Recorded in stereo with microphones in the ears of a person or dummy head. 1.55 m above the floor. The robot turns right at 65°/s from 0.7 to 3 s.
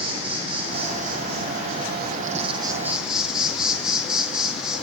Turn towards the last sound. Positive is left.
turn(degrees=0)